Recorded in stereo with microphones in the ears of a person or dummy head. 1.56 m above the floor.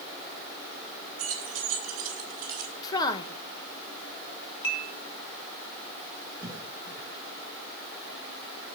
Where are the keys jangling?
45° right (ahead or behind), 5 m; by 2.7 s 50° right (ahead or behind), 6.5 m.